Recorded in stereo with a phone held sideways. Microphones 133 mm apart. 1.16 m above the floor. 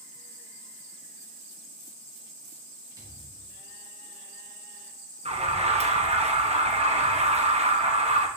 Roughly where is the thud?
Right.